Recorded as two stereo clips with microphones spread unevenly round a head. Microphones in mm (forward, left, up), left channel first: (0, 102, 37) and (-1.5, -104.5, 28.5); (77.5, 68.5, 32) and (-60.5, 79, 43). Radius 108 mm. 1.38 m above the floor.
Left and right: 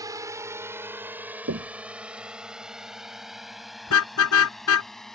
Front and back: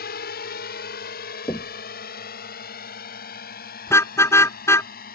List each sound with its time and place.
0.0 s a drone: 15° right; by 5.1 s straight ahead
1.5 s knocking: 75° right
3.9 s a car horn: 70° left